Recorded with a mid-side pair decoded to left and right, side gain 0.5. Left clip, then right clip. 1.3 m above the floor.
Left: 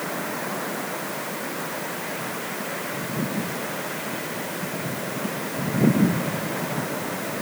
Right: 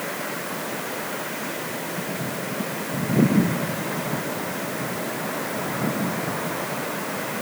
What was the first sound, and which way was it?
Only background noise.